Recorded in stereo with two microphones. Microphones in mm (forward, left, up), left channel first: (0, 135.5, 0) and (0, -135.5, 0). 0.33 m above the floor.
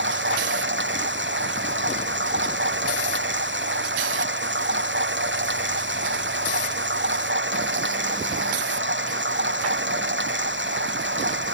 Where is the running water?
45° right (ahead or behind).